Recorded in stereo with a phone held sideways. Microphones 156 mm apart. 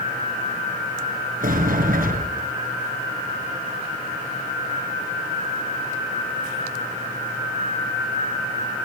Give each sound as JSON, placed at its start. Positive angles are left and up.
{"t": 1.4, "sound": "a sliding door", "side_deg": -65, "distance_m": 5.0}